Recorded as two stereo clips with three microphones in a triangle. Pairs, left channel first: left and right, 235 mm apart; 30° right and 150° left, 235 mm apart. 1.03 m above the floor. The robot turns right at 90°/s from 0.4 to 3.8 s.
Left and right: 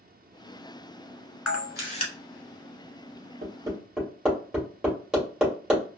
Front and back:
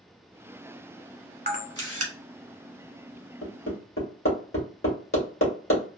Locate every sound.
1.5 s a camera shutter: 105° left, 1.3 m; by 2.1 s 165° left, 1.3 m
3.4 s hammering: 40° right, 2 m; by 5.8 s 5° right, 2 m